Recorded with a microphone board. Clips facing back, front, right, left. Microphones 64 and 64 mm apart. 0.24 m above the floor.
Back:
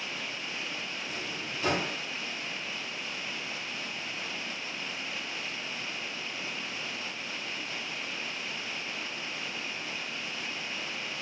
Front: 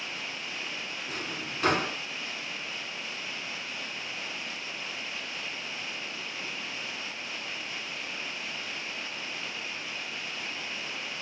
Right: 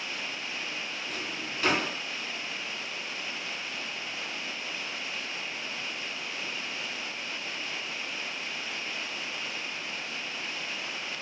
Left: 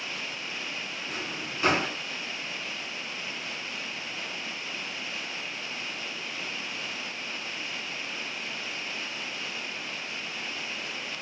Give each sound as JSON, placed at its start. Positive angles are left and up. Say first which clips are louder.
{"t": 1.1, "sound": "a drawer", "louder": "front 1 dB, left 1 dB", "azimuth_deg": 20, "distance_m": 1.0}